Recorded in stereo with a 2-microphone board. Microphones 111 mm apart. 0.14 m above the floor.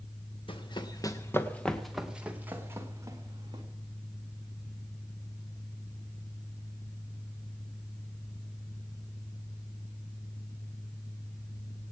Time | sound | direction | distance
0.5 | running footsteps | 50° left (ahead or behind) | 1.6 m